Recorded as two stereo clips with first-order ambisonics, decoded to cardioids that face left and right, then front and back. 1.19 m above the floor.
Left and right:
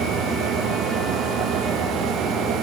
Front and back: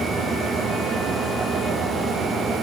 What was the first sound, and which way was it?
Only background noise.